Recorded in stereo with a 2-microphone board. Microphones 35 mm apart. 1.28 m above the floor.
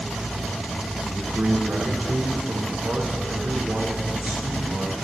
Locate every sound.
1.1 s a man speaking: 70° right (ahead or behind), 1.5 m